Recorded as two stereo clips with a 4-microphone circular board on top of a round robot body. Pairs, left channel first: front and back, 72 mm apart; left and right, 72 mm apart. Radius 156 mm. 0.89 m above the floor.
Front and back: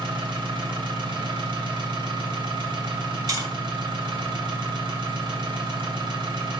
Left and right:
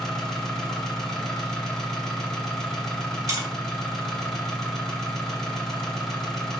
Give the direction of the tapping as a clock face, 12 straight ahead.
5 o'clock.